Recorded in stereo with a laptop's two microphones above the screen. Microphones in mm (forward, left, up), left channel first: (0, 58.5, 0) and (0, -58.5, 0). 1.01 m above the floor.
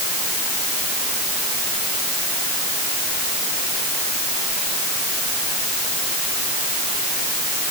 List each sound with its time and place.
Only background noise.